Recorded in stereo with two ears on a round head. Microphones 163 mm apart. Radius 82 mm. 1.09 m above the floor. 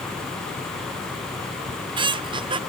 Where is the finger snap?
I don't hear a finger snap.